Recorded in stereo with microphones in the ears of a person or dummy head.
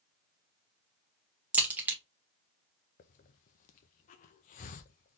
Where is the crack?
10° right (ahead or behind), 1.4 m.